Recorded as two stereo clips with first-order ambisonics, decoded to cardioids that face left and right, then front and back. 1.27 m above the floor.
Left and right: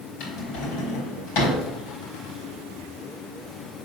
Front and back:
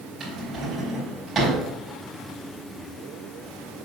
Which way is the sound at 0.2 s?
105° left.